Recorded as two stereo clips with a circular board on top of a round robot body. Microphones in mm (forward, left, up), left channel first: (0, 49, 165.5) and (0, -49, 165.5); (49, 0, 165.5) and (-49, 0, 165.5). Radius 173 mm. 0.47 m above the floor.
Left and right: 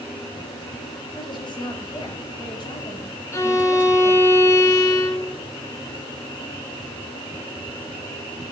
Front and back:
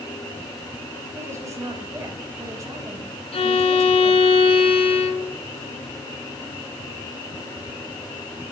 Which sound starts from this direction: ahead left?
A violin, at 3.3 s.